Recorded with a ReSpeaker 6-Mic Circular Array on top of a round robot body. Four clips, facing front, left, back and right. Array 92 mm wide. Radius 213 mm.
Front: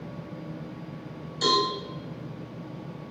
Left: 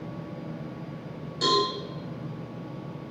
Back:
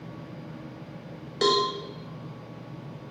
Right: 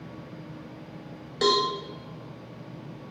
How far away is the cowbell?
About 1.1 m.